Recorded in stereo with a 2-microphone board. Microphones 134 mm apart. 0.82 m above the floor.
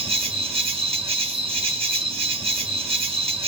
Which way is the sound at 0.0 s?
40° right (ahead or behind).